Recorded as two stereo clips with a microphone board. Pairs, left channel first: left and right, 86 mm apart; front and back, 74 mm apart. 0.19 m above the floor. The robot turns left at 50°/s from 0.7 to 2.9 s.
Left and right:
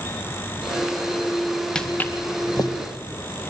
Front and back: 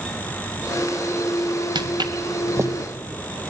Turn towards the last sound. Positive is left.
turn(degrees=115)